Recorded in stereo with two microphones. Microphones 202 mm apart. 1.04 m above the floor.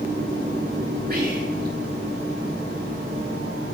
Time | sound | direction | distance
1.1 | whispering | 50° right (ahead or behind) | 1.9 m